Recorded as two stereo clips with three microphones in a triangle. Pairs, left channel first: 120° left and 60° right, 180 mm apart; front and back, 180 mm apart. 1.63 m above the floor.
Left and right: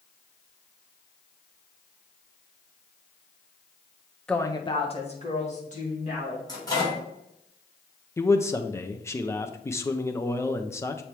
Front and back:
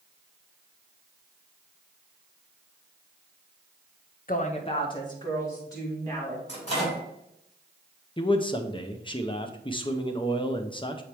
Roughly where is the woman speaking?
Ahead left.